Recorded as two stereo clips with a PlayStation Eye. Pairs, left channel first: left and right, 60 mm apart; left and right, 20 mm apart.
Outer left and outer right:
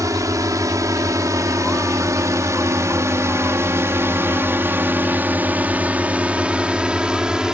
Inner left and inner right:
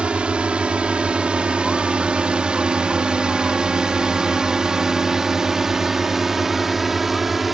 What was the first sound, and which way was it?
A drone, 70° right (ahead or behind).